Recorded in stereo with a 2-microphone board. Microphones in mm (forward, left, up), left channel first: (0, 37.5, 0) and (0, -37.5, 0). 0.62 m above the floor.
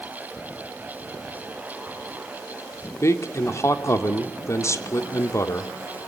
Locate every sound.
3.0 s a man speaking: 40° left (ahead or behind), 2.0 m